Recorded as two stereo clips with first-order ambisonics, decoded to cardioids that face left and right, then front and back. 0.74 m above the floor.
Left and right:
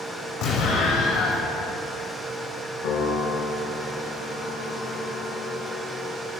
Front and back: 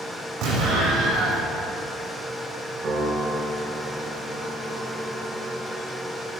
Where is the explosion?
135° left, 6 m.